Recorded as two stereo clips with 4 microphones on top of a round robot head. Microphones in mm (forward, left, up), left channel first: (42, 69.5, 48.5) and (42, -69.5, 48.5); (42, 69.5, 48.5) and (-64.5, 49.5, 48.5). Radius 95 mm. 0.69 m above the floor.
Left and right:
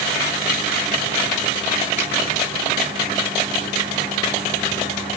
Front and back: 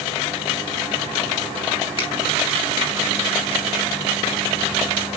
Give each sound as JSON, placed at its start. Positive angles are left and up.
{"t": 2.0, "sound": "a finger snap", "azimuth_deg": 50, "distance_m": 5.0}